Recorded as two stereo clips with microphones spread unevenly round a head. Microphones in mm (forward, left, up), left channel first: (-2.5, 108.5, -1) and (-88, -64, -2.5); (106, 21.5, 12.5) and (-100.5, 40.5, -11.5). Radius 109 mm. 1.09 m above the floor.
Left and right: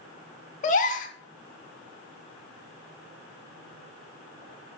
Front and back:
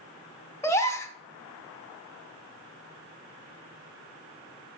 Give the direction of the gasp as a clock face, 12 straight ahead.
10 o'clock.